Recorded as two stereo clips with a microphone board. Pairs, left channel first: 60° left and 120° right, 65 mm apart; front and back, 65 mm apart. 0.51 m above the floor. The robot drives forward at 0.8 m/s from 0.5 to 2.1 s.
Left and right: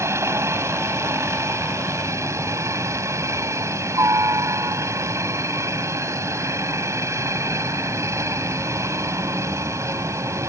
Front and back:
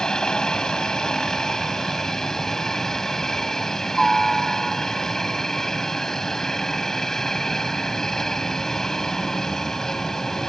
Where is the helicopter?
80° right.